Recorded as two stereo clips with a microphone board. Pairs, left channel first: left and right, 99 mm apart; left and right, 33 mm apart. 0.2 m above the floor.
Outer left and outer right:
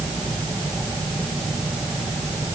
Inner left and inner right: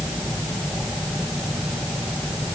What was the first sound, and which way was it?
Only background noise.